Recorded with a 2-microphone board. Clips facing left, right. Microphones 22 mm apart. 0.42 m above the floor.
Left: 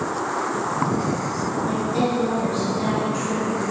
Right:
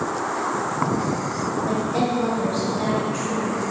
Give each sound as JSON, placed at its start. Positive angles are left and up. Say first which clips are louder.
{"t": 1.7, "sound": "a woman speaking", "louder": "even", "side_deg": -40, "distance_m": 1.8}